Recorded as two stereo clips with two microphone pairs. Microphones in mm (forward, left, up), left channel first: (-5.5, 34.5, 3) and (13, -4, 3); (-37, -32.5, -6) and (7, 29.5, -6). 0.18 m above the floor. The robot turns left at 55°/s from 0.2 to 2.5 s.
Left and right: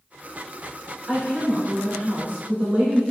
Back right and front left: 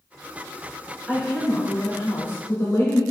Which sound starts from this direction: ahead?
A woman speaking, at 1.1 s.